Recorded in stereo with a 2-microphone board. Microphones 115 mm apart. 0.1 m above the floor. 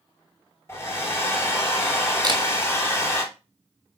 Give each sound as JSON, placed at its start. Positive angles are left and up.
{"t": 0.7, "sound": "a hair dryer", "side_deg": 25, "distance_m": 2.5}
{"t": 2.2, "sound": "a camera shutter", "side_deg": -40, "distance_m": 1.0}